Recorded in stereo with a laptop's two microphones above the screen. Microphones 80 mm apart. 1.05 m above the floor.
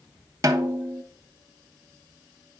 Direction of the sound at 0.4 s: 45° right (ahead or behind).